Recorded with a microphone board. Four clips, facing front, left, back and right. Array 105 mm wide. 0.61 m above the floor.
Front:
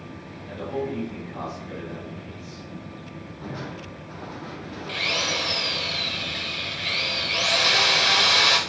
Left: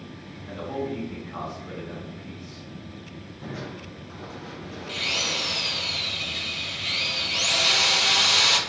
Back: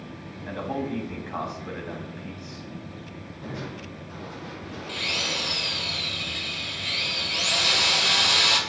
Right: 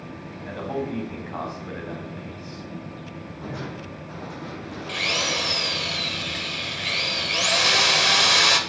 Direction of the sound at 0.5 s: 140° right.